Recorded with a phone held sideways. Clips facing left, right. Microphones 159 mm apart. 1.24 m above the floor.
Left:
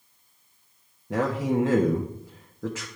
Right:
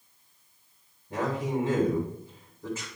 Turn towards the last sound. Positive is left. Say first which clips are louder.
# left 5 dB
turn(degrees=85)